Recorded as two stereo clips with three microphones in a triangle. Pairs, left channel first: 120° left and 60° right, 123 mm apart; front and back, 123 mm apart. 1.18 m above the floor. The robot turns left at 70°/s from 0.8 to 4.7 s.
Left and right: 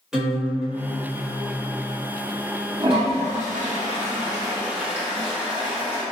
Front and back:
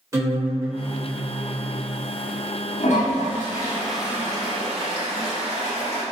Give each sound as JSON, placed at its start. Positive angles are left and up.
{"t": 0.1, "sound": "a guitar", "azimuth_deg": -145, "distance_m": 1.0}
{"t": 2.8, "sound": "a toilet flushing", "azimuth_deg": -5, "distance_m": 0.8}